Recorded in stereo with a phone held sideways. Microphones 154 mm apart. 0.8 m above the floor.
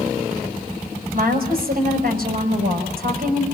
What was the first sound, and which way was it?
A woman speaking, 75° right (ahead or behind).